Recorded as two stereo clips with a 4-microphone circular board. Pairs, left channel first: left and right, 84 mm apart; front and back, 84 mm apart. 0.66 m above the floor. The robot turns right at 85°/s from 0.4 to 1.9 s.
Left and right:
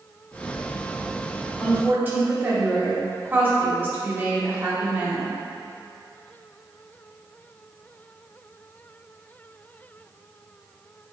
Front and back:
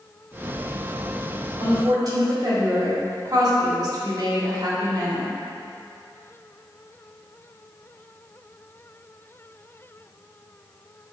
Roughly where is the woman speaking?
Behind.